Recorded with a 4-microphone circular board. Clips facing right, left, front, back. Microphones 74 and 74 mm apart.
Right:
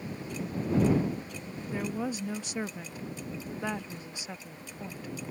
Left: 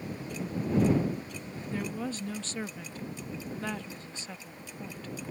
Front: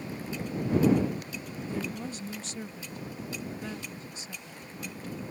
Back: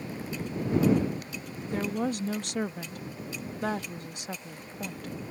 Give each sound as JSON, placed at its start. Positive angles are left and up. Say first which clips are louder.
{"t": 1.7, "sound": "a woman speaking", "louder": "right 2 dB, back 7 dB", "azimuth_deg": -165}